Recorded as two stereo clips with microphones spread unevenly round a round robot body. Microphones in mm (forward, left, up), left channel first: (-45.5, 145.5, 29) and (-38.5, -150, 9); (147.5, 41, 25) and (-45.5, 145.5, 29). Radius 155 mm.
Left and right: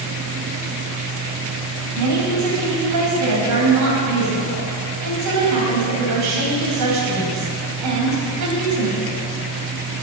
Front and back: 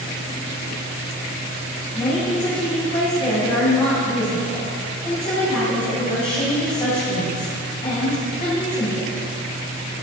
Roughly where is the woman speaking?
Right.